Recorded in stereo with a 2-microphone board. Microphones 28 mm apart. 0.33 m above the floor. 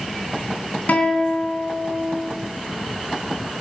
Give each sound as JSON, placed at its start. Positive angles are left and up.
{"t": 0.9, "sound": "a guitar", "side_deg": 65, "distance_m": 3.0}